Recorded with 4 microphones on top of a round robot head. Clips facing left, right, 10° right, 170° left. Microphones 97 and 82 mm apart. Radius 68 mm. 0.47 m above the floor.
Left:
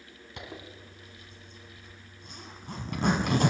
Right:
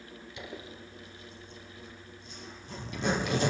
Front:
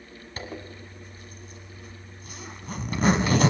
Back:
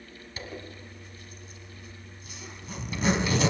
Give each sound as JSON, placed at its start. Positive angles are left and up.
{"t": 0.4, "sound": "a zipper", "azimuth_deg": 35, "distance_m": 1.3}